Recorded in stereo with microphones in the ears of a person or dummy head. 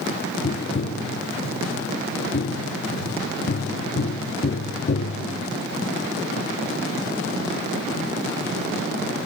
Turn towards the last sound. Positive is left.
turn(degrees=40)  # may be behind; listen again after turning